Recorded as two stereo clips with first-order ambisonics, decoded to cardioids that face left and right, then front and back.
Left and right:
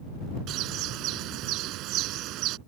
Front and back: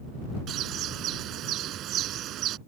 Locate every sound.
0.5 s a bird: 130° right